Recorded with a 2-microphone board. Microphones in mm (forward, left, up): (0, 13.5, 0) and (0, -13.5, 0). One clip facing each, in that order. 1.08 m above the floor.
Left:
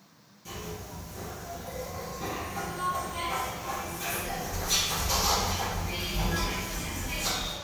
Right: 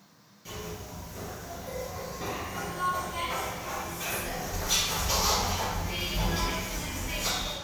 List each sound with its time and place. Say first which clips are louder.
0.5 s a zipper: even; 25° right (ahead or behind), 2.0 m